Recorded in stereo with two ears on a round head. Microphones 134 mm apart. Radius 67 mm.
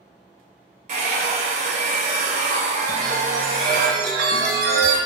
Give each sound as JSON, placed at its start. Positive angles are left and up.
{"t": 0.9, "sound": "a hair dryer", "side_deg": -55, "distance_m": 1.2}
{"t": 2.9, "sound": "a chime", "side_deg": -75, "distance_m": 1.4}